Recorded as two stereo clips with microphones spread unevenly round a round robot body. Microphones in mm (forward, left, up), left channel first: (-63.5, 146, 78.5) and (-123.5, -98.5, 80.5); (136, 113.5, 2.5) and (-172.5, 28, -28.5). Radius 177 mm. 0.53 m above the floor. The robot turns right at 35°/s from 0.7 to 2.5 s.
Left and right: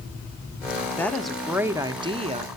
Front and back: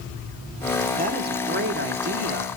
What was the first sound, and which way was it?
A woman speaking, 155° left.